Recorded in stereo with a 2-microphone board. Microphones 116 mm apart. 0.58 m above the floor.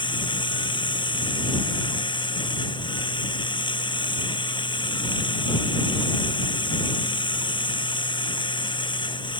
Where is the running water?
45° left (ahead or behind).